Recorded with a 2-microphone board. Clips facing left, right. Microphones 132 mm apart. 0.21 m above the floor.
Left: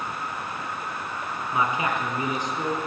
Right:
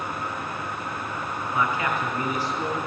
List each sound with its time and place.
1.5 s a man speaking: 20° left (ahead or behind), 3 m